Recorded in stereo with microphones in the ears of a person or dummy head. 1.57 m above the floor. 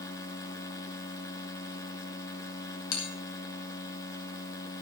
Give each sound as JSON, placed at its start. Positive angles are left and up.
{"t": 0.0, "sound": "a machine running", "side_deg": 20, "distance_m": 2.0}
{"t": 2.9, "sound": "a bell", "side_deg": 85, "distance_m": 5.5}